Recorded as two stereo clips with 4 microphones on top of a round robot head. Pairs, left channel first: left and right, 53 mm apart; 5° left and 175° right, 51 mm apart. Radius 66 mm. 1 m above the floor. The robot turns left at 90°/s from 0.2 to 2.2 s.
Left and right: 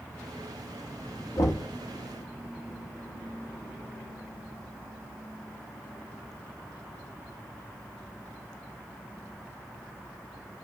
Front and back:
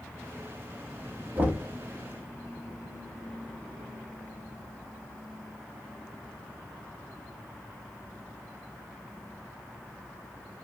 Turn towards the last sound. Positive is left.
turn(degrees=55)